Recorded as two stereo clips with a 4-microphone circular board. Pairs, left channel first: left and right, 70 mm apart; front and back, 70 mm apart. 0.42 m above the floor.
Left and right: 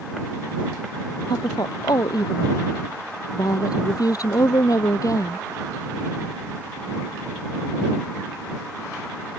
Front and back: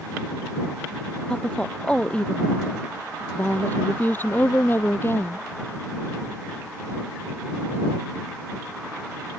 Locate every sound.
1.3 s a woman speaking: 75° left; by 5.4 s 55° left